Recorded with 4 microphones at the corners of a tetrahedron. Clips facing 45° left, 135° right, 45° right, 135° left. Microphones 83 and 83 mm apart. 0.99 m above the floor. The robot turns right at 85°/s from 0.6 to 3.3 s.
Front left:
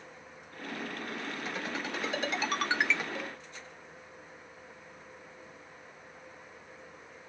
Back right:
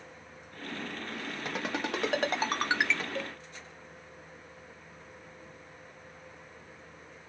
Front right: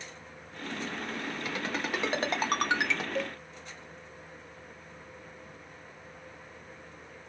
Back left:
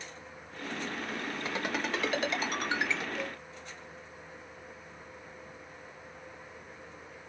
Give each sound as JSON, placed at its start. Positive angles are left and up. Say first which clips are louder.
{"t": 1.4, "sound": "a ringtone", "louder": "back right 6 dB, back left 1 dB", "azimuth_deg": -165, "distance_m": 1.1}
{"t": 3.1, "sound": "a cowbell", "louder": "back right 2 dB, front right 4 dB", "azimuth_deg": -70, "distance_m": 1.0}